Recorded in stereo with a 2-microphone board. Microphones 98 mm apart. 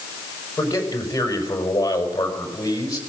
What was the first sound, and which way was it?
A man speaking, 35° left (ahead or behind).